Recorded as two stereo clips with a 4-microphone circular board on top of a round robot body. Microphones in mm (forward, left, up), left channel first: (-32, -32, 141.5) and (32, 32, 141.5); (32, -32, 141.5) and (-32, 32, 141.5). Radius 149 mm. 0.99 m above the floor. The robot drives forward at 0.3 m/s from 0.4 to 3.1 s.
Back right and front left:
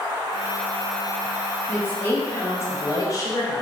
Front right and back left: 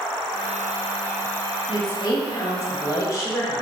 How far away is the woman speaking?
About 1.2 m.